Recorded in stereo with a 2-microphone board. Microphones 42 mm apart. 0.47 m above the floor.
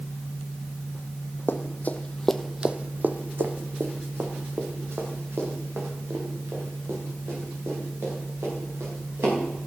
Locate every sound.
1.5 s running footsteps: 55° left (ahead or behind), 1.4 m; by 9.3 s 80° right, 9 m